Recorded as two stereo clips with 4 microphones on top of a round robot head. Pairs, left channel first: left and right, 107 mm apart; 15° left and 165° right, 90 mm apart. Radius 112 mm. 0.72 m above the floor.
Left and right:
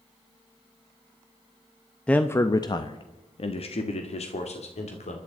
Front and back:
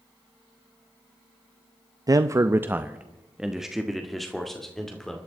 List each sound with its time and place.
2.1 s a man speaking: 165° left, 0.7 m; by 5.2 s 95° left, 2.5 m